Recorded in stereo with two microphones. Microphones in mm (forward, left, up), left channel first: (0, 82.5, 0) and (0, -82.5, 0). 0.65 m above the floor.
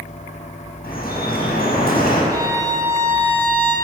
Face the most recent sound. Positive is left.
turn(degrees=-25)  # may be behind; listen again after turning